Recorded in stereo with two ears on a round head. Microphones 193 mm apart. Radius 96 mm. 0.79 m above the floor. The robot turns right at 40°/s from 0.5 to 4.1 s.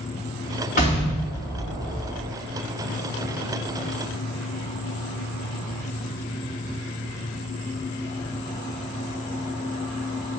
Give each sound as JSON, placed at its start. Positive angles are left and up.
{"t": 0.8, "sound": "an explosion", "azimuth_deg": 140, "distance_m": 2.5}